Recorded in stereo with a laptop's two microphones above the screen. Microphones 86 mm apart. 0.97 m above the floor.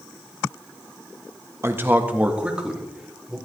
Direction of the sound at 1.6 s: 30° right (ahead or behind).